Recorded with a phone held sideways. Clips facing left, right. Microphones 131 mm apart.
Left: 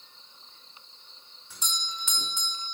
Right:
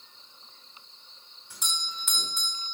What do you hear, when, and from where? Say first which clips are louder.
1.5 s a doorbell: left 1 dB; 10° right (ahead or behind), 2.5 m